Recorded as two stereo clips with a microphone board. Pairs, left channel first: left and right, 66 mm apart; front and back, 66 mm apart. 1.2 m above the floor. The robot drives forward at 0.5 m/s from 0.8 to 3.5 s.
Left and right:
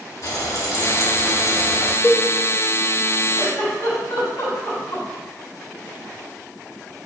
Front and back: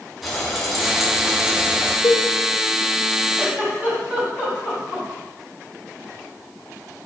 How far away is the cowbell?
About 0.7 m.